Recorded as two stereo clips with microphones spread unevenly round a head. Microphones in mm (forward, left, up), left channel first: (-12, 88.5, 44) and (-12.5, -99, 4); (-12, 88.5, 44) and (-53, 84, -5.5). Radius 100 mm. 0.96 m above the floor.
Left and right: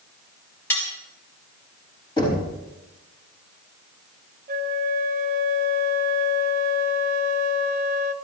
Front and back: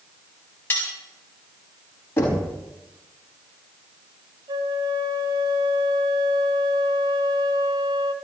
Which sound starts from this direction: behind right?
A flute, at 4.5 s.